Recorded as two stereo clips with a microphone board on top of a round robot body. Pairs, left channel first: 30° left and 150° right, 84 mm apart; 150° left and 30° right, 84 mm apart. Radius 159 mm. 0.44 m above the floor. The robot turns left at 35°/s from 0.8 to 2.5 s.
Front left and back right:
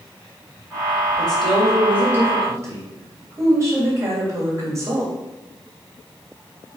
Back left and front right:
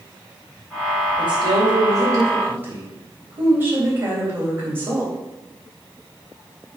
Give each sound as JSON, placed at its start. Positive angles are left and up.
{"t": 1.2, "sound": "a woman speaking", "azimuth_deg": -45, "distance_m": 3.0}